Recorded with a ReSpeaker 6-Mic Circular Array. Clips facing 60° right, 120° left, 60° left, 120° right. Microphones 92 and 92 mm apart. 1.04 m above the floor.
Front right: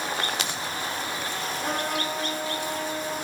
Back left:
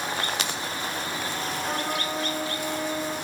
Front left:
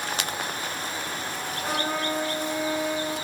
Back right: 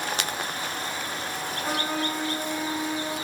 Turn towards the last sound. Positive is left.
turn(degrees=-5)